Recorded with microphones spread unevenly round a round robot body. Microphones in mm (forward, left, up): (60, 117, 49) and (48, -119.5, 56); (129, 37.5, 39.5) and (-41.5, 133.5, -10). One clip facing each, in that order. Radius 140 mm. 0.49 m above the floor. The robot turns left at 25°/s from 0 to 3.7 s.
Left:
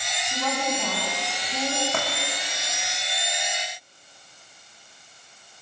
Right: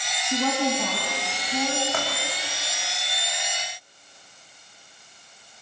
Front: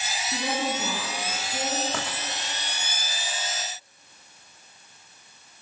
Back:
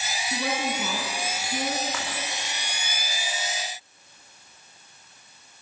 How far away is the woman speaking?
About 5 m.